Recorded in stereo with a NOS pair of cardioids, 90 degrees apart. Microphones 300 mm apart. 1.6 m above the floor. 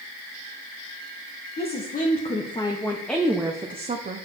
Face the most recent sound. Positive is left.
turn(degrees=-35)